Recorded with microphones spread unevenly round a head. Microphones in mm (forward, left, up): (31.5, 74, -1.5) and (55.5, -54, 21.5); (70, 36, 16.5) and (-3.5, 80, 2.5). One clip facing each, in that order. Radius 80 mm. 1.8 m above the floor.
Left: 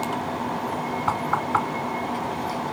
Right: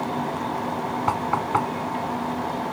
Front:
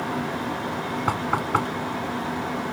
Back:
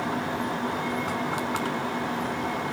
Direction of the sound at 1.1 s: 5° right.